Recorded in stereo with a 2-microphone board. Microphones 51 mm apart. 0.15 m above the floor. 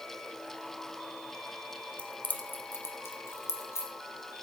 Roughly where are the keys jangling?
Left.